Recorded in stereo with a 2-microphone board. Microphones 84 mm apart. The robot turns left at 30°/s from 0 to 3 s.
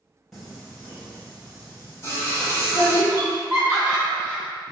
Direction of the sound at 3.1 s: 15° right (ahead or behind).